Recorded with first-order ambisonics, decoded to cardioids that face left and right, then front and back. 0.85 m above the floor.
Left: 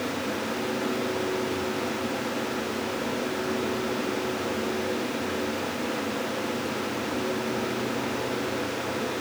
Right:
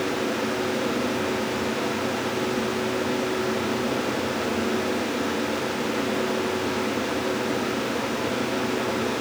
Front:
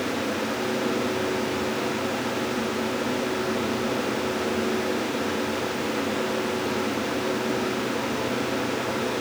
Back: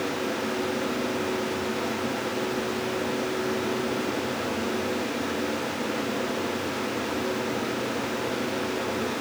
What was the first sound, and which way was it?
Only background noise.